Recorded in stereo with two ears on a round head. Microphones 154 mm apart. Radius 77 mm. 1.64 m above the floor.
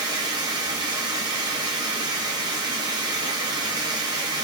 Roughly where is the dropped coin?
No dropped coin in this recording.